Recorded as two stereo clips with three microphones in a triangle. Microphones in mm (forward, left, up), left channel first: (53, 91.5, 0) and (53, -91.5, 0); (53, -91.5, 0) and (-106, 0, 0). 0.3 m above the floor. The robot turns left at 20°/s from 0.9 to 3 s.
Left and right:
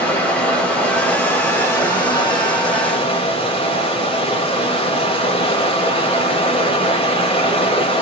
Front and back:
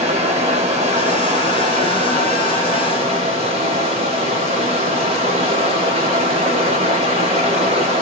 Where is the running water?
170° left, 1.2 m; by 8.0 s 125° left, 1.2 m.